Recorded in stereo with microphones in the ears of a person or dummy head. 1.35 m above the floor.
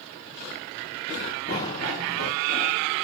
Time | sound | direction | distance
1.5 | running footsteps | 40° left (ahead or behind) | 5 m